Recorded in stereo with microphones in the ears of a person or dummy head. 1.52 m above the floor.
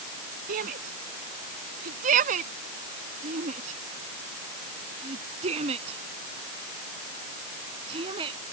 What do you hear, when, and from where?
0.5 s a shout: 45° right (ahead or behind); by 8.4 s 25° right (ahead or behind)